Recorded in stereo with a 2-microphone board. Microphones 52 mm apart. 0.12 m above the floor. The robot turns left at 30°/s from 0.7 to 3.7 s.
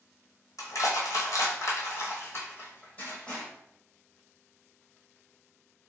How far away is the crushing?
About 1.1 m.